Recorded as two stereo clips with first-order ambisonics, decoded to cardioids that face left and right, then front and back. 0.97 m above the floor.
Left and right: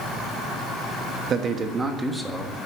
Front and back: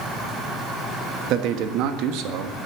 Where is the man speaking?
145° right, 1.4 m; by 2.7 s 175° left, 1.7 m.